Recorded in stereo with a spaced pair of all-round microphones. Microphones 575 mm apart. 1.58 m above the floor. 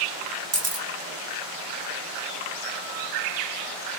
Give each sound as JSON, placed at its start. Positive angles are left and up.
{"t": 0.5, "sound": "a camera shutter", "side_deg": -25, "distance_m": 0.6}